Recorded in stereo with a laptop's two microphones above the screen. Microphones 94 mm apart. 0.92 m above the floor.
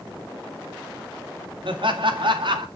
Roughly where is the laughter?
Right.